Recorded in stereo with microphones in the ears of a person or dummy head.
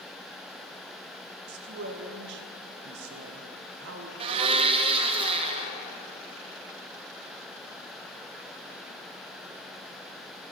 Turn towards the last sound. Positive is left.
turn(degrees=-25)  # may be behind; listen again after turning